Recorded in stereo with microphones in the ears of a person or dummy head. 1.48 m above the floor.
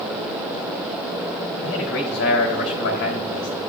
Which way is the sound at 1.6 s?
60° left (ahead or behind).